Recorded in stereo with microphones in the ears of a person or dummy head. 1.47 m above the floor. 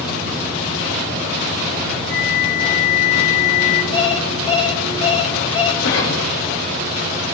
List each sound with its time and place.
2.1 s a flute: 75° left (ahead or behind), 4 m
3.9 s an alarm clock: 35° left (ahead or behind), 3 m
5.8 s a cough: 75° left (ahead or behind), 9.5 m